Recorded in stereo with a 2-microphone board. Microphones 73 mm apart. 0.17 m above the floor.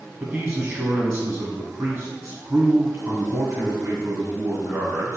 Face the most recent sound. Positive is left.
turn(degrees=-20)  # may be behind; listen again after turning